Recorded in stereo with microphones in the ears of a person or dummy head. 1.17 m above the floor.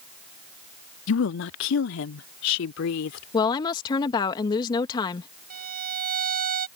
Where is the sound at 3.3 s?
25° left (ahead or behind).